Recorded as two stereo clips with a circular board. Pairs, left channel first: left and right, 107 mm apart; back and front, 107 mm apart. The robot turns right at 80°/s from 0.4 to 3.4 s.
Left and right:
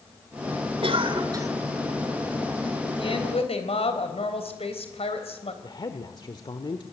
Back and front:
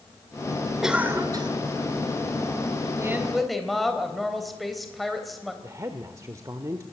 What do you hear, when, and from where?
0.8 s a cough: 85° right, 2.5 m; by 1.5 s 30° right, 2.5 m
3.0 s a woman speaking: 60° left, 3.5 m; by 5.5 s 90° left, 3.5 m
5.6 s a woman speaking: 55° left, 1.3 m